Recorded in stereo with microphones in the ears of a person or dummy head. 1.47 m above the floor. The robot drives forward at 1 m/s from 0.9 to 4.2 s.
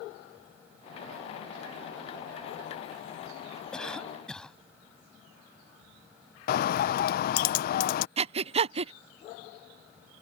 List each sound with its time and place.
3.7 s a cough: 5° left (ahead or behind)
6.5 s a bird: 60° left (ahead or behind)
8.2 s breathing: 35° right (ahead or behind)